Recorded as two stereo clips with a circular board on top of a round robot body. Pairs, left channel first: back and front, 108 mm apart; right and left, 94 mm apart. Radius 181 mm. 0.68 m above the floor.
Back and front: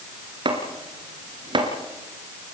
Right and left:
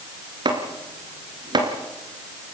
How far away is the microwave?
No microwave in this recording.